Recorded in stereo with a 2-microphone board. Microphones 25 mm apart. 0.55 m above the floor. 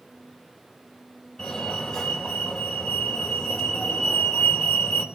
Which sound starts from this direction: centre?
A fire alarm, at 1.4 s.